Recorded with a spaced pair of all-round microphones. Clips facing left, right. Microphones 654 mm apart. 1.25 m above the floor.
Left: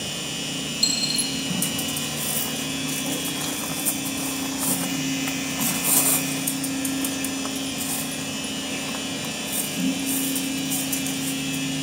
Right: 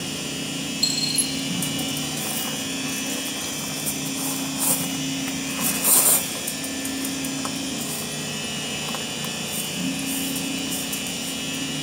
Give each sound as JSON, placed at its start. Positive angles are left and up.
{"t": 0.8, "sound": "a dropped coin", "side_deg": 55, "distance_m": 3.5}